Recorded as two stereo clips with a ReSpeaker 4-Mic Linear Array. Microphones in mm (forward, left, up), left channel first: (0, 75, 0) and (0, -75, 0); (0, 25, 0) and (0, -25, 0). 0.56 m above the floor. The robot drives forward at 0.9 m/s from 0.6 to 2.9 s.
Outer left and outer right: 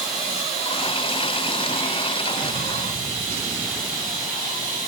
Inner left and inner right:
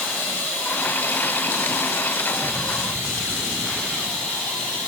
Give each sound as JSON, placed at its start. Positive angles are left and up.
{"t": 0.0, "sound": "running water", "side_deg": 45, "distance_m": 3.0}